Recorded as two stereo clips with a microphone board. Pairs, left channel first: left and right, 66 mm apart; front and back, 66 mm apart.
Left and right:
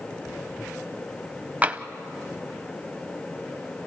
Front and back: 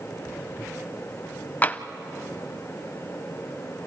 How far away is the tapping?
About 0.6 m.